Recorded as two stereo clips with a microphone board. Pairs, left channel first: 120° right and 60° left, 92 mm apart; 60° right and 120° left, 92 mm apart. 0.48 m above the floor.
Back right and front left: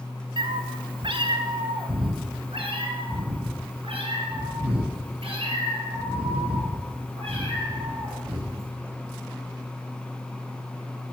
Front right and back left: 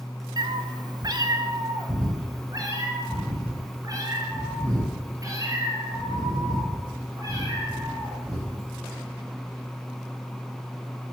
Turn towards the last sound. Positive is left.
turn(degrees=65)